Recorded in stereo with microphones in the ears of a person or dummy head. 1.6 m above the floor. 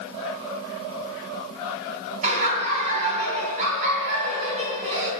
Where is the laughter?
45° right (ahead or behind), 2 m.